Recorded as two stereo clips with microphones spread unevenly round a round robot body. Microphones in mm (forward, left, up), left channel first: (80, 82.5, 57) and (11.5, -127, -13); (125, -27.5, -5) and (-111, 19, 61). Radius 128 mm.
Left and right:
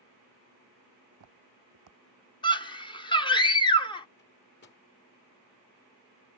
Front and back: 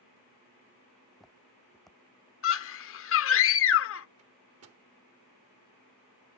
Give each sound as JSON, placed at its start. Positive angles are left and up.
{"t": 1.1, "sound": "footsteps", "azimuth_deg": -110}
{"t": 2.4, "sound": "a scream", "azimuth_deg": -5}
{"t": 4.2, "sound": "a microwave", "azimuth_deg": 130}